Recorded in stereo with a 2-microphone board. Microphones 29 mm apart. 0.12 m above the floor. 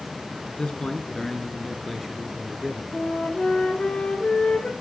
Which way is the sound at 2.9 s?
30° left (ahead or behind).